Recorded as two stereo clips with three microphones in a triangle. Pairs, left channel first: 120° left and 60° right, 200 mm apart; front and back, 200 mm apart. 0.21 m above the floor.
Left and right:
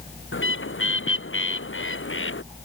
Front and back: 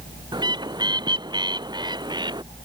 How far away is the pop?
No pop in this recording.